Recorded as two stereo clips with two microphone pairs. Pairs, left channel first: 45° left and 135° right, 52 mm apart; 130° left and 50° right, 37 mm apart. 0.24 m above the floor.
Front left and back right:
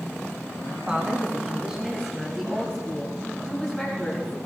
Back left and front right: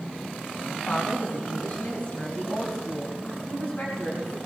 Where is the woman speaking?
165° left, 2 m; by 4.4 s 120° left, 3 m.